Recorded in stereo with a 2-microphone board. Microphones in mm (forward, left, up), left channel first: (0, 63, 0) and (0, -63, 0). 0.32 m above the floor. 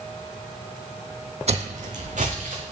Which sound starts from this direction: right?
Footsteps, at 1.5 s.